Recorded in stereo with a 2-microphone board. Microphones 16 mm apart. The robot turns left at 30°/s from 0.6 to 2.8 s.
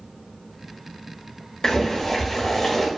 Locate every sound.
1.6 s boiling: 55° left, 0.5 m; by 2.9 s 20° left, 0.5 m